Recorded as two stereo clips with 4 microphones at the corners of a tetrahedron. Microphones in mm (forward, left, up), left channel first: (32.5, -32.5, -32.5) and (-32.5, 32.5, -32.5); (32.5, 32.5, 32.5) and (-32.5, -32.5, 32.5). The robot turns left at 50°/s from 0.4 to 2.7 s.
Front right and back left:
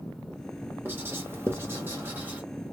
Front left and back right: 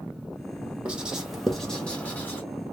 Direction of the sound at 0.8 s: 165° left.